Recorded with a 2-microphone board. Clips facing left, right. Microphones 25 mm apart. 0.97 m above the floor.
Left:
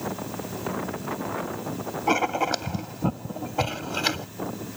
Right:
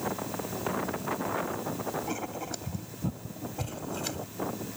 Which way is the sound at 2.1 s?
50° left (ahead or behind).